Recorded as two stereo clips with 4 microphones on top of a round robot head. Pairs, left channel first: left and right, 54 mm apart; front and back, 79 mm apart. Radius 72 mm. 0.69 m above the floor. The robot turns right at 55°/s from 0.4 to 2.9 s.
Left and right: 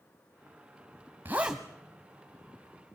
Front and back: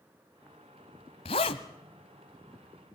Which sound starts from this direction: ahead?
A zipper, at 1.2 s.